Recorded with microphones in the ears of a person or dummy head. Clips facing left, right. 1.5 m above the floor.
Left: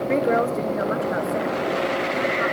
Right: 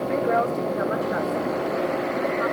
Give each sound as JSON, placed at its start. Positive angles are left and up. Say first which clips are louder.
{"t": 0.1, "sound": "a woman speaking", "louder": "left 3 dB", "side_deg": 30, "distance_m": 0.6}